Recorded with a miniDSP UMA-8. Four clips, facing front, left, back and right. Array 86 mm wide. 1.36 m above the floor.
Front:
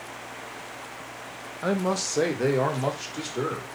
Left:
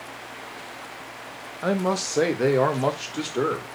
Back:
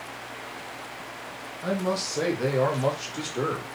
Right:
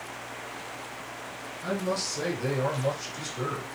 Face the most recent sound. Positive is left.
turn(degrees=95)